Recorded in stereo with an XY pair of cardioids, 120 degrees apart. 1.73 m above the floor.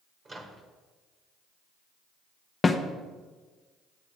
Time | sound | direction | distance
0.2 | a microwave | 25° right | 1.4 m
2.6 | a snare drum | 25° left | 0.7 m